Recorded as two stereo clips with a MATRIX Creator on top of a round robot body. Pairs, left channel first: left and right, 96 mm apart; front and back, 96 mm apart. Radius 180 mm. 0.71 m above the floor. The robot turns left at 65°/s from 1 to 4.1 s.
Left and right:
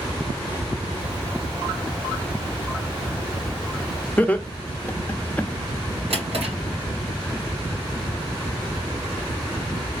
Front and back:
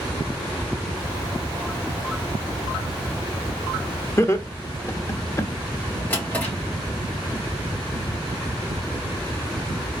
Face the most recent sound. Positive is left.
turn(degrees=-75)